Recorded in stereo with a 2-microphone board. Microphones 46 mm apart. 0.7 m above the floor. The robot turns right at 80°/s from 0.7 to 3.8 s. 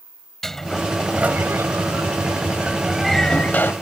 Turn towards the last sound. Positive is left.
turn(degrees=60)